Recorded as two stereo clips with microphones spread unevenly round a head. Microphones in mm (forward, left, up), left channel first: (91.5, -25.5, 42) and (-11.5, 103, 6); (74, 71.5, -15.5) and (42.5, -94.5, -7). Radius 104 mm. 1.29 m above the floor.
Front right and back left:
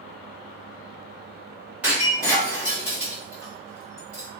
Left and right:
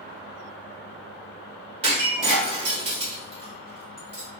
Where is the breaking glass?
135° right, 1.2 m.